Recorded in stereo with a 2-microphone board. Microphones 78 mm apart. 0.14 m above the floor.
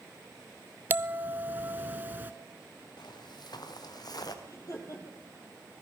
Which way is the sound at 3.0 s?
70° left (ahead or behind).